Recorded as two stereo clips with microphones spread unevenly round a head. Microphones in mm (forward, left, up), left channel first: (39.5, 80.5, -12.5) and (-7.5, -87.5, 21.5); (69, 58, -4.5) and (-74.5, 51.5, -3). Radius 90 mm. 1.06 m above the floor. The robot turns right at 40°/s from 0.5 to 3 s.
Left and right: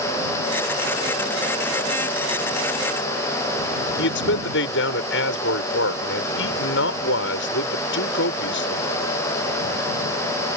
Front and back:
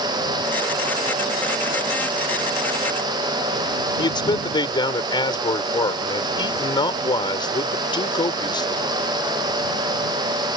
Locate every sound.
4.0 s a man speaking: 60° left